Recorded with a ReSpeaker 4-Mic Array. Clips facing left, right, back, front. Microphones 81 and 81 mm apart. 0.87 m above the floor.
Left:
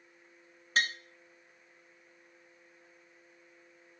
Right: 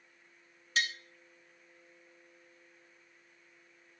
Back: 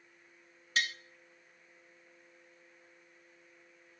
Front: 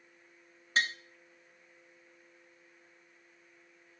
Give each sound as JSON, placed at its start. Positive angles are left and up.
{"t": 0.8, "sound": "tapping", "azimuth_deg": 50, "distance_m": 0.9}